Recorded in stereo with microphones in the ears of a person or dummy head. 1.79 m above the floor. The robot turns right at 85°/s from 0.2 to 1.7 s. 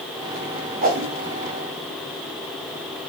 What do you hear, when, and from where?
0.8 s a whoosh: 45° right (ahead or behind), 0.9 m; by 1.1 s 70° right (ahead or behind), 0.9 m